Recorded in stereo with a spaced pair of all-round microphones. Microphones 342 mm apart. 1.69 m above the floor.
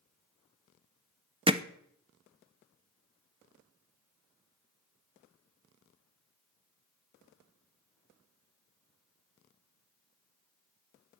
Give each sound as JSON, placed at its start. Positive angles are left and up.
{"t": 1.5, "sound": "hammering", "side_deg": -15, "distance_m": 0.7}